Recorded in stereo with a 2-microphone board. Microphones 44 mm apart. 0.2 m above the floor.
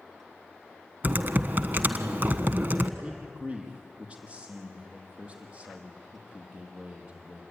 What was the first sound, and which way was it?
Typing on a keyboard, 45° right (ahead or behind).